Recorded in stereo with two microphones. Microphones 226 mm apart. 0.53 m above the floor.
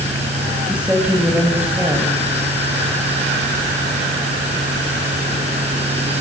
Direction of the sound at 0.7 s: 5° right (ahead or behind).